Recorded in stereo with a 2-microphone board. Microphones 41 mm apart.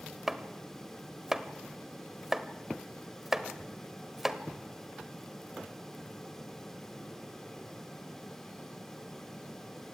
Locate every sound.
0.3 s chopping: 10° right (ahead or behind), 1.2 m